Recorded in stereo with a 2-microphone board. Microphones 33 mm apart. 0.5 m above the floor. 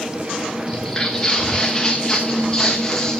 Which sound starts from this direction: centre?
Footsteps, at 0.7 s.